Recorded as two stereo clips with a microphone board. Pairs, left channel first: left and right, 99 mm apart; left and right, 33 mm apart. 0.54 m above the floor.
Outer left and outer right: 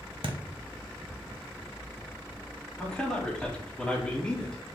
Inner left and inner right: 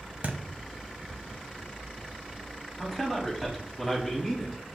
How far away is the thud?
About 0.6 m.